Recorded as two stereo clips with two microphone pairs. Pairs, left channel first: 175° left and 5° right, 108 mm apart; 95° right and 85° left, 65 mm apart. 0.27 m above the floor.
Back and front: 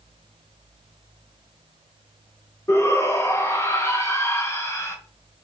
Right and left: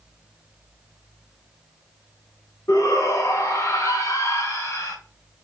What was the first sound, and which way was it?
A shout, 125° right.